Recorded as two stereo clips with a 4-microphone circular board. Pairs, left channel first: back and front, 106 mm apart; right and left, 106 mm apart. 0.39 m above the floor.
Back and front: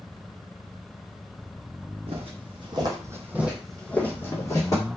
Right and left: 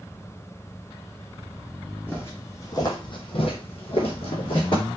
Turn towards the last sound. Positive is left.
turn(degrees=-130)